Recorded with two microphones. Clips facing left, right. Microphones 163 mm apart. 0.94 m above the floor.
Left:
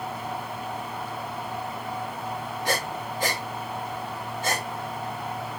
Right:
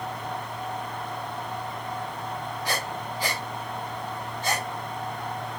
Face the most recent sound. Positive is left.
turn(degrees=50)  # may be behind; listen again after turning